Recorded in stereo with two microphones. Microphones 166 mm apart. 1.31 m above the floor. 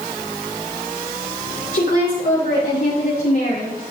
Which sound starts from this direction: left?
A woman speaking, at 1.7 s.